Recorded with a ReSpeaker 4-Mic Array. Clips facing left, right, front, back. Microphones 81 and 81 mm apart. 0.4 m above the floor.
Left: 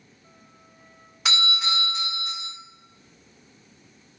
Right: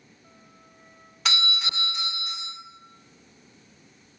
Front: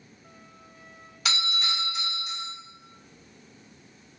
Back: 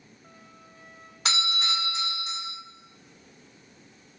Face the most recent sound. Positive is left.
turn(degrees=165)